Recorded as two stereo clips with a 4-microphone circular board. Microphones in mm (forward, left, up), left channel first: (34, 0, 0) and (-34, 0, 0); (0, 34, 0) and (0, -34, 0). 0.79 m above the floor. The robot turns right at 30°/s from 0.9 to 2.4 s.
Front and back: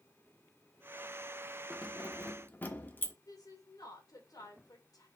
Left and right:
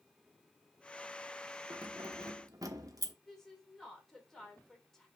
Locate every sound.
1.7 s keys jangling: 80° right, 1.0 m; by 3.1 s 60° right, 1.0 m
3.3 s a woman speaking: 10° left, 3 m